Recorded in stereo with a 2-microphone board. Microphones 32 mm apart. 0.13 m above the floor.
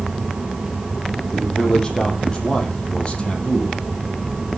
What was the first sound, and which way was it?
A man speaking, 20° left (ahead or behind).